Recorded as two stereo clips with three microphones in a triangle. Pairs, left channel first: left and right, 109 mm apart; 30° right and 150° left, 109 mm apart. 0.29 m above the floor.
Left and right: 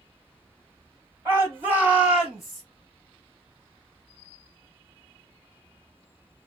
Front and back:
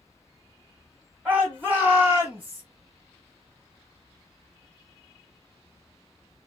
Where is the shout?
140° right, 1.8 m; by 2.6 s 165° left, 1.4 m.